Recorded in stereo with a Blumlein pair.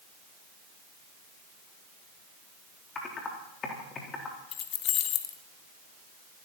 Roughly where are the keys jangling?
Ahead left.